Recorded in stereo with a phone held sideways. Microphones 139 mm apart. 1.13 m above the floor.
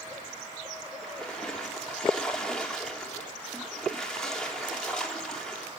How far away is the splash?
About 3.5 m.